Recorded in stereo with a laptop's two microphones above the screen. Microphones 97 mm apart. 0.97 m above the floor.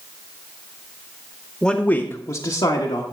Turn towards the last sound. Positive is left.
turn(degrees=70)  # may be behind; listen again after turning